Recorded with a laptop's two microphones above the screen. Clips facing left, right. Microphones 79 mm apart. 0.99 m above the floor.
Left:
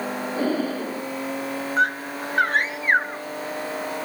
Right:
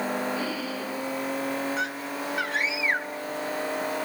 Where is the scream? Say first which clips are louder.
Left 7 dB; 45° left (ahead or behind).